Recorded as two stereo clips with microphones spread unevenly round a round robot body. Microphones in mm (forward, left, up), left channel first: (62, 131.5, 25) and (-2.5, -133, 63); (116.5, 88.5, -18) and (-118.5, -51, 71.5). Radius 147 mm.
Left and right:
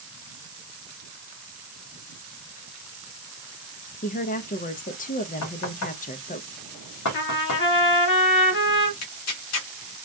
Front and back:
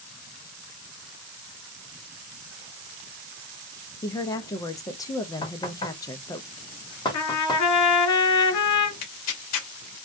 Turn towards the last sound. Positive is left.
turn(degrees=50)